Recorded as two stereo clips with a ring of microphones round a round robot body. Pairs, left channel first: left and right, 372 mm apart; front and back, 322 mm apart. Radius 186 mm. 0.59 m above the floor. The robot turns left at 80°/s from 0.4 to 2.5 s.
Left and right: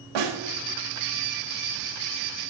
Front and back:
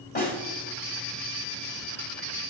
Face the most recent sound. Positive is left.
turn(degrees=125)